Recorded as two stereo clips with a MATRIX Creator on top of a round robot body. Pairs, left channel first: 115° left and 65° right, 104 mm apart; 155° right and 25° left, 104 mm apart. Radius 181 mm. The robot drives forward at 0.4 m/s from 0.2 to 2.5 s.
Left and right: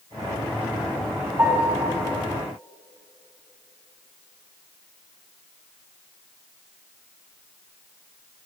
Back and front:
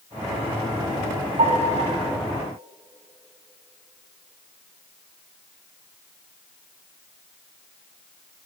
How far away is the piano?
About 3.5 m.